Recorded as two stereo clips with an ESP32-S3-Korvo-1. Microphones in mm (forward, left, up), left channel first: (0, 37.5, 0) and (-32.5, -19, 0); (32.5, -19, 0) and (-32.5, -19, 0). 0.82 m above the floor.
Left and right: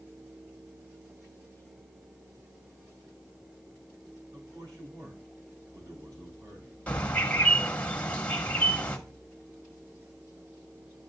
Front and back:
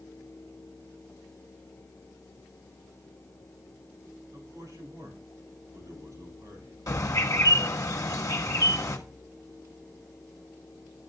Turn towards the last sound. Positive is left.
turn(degrees=-10)